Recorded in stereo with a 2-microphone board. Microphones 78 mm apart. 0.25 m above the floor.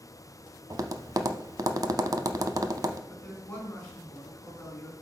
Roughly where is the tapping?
Right.